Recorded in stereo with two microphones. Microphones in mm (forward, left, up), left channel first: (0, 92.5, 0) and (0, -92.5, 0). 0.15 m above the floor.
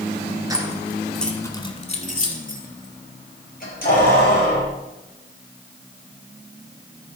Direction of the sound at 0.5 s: 20° right (ahead or behind).